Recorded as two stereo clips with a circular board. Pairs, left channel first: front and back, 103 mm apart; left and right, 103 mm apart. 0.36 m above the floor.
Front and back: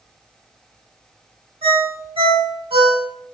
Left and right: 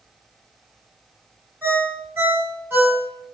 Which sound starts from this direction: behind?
A ringtone, at 1.6 s.